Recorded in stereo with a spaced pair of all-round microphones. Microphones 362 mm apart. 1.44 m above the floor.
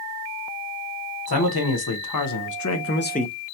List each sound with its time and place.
1.3 s a man speaking: 90° left, 1.1 m; by 3.3 s 15° left (ahead or behind), 0.6 m